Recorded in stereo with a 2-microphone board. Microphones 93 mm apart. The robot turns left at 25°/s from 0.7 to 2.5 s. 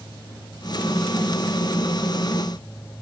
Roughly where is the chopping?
No chopping in this recording.